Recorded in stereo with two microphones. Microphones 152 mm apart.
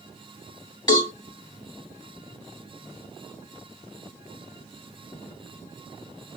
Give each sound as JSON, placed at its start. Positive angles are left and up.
{"t": 0.9, "sound": "a cowbell", "side_deg": 30, "distance_m": 1.7}